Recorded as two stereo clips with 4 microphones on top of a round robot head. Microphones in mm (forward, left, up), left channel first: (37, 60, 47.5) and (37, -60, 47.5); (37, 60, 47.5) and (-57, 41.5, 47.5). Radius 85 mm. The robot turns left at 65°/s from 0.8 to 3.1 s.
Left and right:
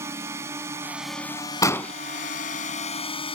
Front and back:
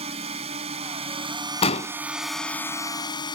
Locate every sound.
0.0 s a drone: 160° right; by 3.4 s 50° left
1.6 s an explosion: 30° left; by 1.9 s 5° left